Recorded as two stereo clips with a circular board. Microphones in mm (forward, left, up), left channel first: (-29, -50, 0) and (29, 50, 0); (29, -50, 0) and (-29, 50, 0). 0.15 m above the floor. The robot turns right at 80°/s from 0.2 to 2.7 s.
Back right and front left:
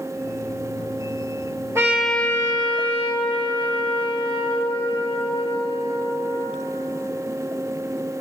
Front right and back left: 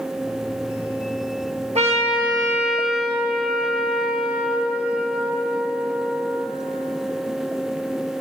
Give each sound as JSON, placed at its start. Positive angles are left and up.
{"t": 1.8, "sound": "a trumpet", "azimuth_deg": 125, "distance_m": 1.3}